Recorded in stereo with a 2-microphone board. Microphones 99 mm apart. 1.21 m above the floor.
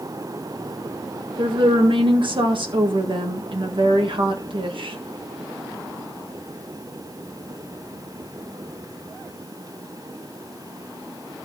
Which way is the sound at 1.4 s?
60° right (ahead or behind).